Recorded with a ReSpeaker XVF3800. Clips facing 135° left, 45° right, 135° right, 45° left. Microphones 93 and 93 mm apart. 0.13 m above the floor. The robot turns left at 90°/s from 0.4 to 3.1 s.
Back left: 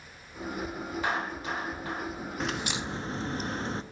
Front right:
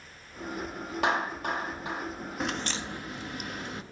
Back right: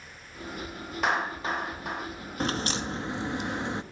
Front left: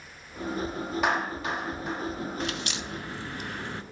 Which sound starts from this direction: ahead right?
A clap, at 1.0 s.